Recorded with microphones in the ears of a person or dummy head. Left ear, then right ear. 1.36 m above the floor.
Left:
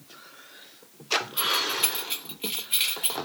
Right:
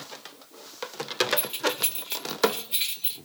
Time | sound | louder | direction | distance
1.4 | keys jangling | left 3 dB | 5° right (ahead or behind) | 0.9 m